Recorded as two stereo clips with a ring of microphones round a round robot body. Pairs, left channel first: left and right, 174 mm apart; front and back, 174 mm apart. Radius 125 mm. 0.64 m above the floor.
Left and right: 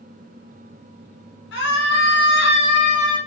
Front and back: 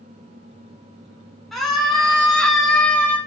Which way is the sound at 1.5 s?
90° left.